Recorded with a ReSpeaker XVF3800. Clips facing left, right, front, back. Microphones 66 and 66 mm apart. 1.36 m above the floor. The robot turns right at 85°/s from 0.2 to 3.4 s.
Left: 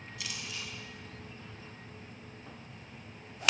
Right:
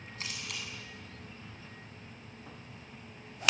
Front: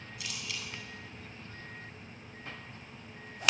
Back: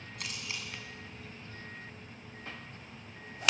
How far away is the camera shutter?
About 8.5 m.